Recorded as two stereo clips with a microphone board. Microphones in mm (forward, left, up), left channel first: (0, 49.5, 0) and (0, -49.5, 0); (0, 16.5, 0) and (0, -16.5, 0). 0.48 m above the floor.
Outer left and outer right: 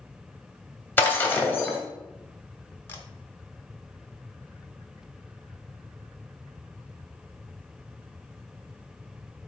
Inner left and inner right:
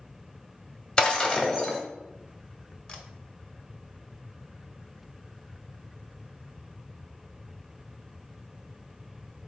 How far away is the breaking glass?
About 1.4 m.